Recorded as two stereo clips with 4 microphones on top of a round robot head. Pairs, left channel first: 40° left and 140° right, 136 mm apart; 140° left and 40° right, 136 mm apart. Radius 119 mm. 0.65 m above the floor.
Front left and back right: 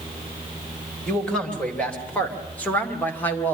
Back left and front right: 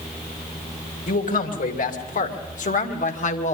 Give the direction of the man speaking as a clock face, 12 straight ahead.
8 o'clock.